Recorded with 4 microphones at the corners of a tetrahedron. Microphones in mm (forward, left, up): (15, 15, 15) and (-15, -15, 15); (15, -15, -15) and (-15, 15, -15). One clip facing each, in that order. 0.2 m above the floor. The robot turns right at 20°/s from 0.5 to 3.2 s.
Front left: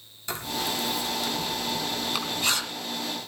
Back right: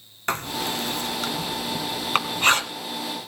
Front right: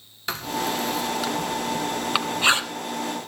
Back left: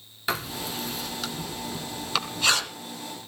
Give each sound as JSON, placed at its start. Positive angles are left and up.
{"t": 0.3, "sound": "writing", "azimuth_deg": -140, "distance_m": 2.0}